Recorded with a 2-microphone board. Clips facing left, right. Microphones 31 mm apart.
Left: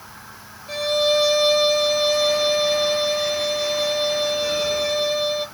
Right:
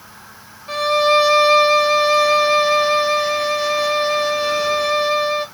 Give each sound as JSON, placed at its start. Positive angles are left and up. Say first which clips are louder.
{"t": 0.7, "sound": "a violin", "louder": "right 5 dB", "side_deg": -35, "distance_m": 1.7}